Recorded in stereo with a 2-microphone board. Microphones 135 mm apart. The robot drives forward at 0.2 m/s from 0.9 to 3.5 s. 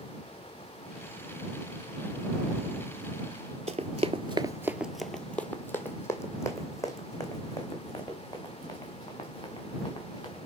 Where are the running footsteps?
55° right (ahead or behind), 0.7 m; by 10.4 s 30° left (ahead or behind), 4.5 m.